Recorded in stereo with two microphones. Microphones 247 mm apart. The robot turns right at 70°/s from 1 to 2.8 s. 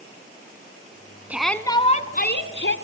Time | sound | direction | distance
1.3 | a shout | 10° right | 1.6 m